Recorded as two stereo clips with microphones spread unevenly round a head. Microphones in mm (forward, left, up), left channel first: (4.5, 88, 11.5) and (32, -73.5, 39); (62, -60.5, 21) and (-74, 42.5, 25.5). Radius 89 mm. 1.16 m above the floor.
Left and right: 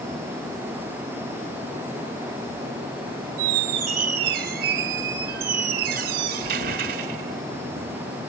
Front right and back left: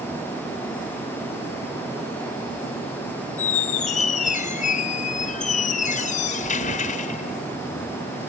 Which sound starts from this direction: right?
A squeak, at 3.4 s.